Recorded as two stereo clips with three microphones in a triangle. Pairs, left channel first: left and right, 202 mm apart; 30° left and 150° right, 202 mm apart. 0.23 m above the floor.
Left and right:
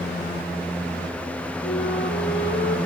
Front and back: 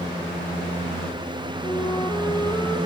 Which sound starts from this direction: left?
A flute, at 1.6 s.